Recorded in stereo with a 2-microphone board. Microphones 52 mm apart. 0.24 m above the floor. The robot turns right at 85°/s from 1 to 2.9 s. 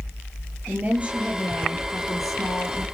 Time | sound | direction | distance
0.7 | a woman speaking | 25° right | 6 m